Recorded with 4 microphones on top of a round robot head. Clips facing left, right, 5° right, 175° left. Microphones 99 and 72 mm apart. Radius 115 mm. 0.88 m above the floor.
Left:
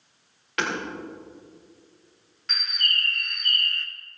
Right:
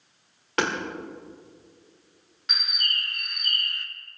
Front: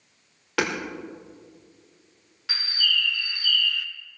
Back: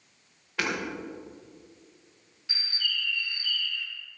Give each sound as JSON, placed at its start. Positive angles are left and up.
{"t": 0.6, "sound": "hammering", "azimuth_deg": -30, "distance_m": 2.0}
{"t": 2.5, "sound": "a bird", "azimuth_deg": -15, "distance_m": 0.9}